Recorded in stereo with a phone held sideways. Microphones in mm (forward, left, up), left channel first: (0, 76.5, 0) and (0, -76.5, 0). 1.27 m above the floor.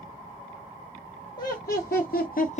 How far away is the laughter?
About 1.1 m.